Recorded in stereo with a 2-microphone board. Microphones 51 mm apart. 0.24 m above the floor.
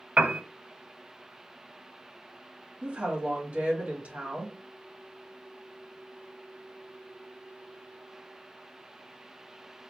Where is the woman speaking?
35° right (ahead or behind), 1.6 m.